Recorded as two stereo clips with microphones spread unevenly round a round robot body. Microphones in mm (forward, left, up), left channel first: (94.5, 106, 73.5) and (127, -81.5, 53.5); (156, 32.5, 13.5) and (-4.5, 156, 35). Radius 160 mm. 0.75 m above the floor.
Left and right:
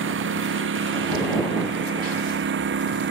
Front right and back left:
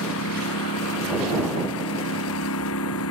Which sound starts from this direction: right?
A lawn mower, at 0.0 s.